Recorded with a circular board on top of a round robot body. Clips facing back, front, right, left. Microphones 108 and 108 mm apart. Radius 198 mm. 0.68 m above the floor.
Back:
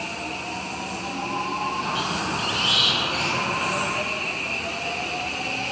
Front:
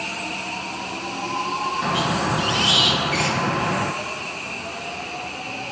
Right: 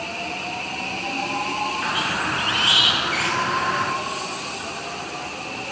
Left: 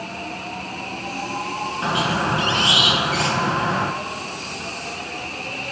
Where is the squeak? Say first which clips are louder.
Front 5 dB, left 4 dB; 25° left, 1.4 m.